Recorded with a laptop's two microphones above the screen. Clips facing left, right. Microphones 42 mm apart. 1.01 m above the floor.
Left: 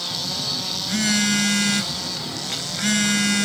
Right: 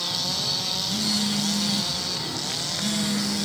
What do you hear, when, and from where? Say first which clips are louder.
0.1 s a phone buzzing: even; 70° left (ahead or behind)